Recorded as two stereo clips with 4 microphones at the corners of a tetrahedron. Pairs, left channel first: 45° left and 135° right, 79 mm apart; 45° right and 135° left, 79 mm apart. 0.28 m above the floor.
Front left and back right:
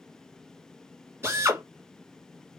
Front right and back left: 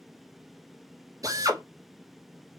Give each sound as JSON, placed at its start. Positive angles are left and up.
{"t": 1.2, "sound": "a drill", "azimuth_deg": 170, "distance_m": 1.9}